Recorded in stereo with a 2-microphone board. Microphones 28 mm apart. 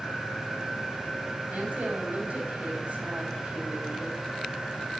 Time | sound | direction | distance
1.5 | a woman speaking | 70° right (ahead or behind) | 3.5 m